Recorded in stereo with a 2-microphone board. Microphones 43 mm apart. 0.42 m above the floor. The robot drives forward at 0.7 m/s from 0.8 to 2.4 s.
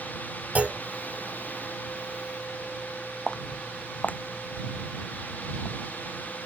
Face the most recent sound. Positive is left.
turn(degrees=65)  # may be behind; listen again after turning